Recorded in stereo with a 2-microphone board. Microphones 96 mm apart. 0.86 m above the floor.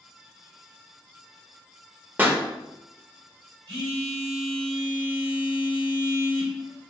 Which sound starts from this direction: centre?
A pop, at 2.2 s.